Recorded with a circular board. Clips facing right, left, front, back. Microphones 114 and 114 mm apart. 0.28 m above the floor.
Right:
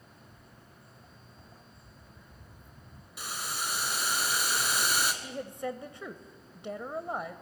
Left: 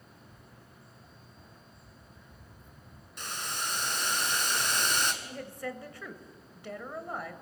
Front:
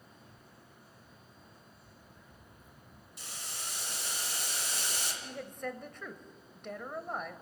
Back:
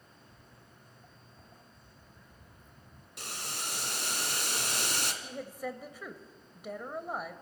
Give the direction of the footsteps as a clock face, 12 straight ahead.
7 o'clock.